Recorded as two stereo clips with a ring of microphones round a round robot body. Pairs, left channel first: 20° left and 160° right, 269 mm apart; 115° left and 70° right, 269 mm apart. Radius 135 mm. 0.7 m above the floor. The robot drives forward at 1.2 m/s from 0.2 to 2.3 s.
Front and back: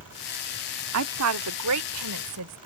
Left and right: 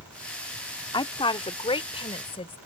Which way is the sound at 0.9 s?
175° right.